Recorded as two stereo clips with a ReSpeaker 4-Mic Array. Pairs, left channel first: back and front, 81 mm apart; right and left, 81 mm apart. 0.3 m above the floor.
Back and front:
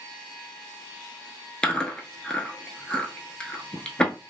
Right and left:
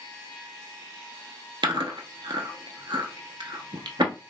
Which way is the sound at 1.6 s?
105° left.